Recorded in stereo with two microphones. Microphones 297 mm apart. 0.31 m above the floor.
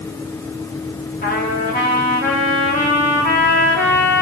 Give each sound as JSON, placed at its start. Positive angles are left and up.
{"t": 1.2, "sound": "a trumpet", "side_deg": 30, "distance_m": 6.5}